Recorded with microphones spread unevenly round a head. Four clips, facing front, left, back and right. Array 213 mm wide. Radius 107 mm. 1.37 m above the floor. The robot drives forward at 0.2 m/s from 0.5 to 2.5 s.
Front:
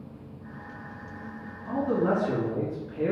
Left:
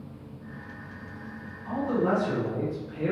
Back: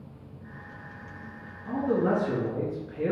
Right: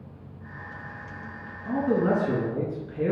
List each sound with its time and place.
1.6 s a man speaking: 115° right, 1.3 m; by 3.1 s 120° right, 1.4 m